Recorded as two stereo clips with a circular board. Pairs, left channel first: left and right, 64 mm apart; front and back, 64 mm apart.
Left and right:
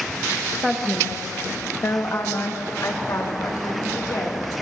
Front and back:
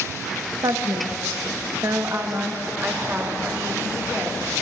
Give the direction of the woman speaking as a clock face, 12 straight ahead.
6 o'clock.